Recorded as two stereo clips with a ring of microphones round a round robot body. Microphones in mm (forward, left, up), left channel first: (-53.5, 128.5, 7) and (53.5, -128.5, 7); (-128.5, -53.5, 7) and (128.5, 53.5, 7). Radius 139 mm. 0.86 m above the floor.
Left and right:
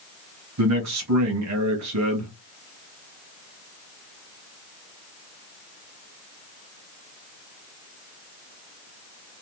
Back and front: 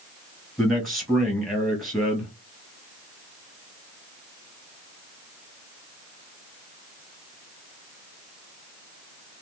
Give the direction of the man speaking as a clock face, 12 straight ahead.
2 o'clock.